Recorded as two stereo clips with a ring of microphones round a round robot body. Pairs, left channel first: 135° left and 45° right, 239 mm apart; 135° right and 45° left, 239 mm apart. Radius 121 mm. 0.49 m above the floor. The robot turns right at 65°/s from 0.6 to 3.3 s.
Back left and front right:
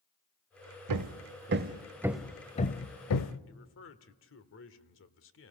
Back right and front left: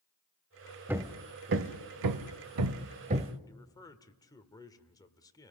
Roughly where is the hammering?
Ahead right.